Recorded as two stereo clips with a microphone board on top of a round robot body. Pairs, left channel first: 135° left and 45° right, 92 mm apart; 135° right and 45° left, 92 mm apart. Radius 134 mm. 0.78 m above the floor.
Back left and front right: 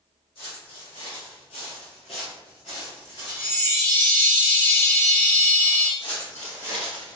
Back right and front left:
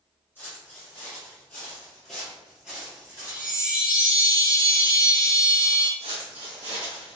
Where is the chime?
120° left, 1.3 m.